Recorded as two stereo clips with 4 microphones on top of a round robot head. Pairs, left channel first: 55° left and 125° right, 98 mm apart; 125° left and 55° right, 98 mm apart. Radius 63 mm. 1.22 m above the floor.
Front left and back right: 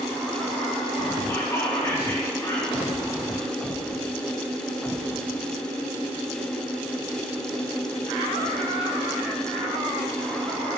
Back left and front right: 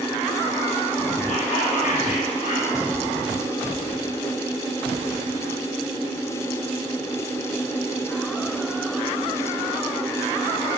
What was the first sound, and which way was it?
Whispering, 120° left.